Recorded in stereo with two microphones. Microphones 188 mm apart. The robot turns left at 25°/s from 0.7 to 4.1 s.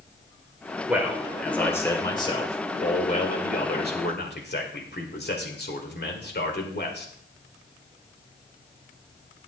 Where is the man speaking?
170° right, 2.0 m; by 7.1 s 110° left, 2.0 m.